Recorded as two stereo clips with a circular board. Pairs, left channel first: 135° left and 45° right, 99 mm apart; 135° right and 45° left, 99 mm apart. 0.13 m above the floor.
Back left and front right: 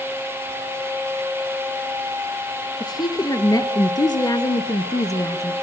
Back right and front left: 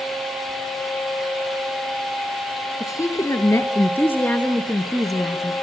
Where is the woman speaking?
175° left, 2 m; by 5.5 s 120° left, 1.3 m.